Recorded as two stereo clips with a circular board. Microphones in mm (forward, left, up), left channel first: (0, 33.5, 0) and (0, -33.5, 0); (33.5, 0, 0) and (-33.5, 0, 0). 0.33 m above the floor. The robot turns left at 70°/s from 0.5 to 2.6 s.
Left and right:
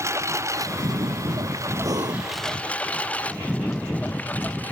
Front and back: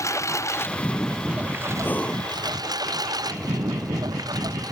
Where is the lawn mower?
45° right; by 4.7 s 155° left.